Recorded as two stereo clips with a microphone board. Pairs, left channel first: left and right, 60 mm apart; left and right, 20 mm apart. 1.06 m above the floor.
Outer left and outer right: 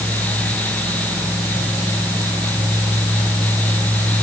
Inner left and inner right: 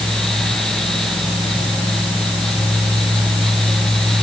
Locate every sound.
Only background noise.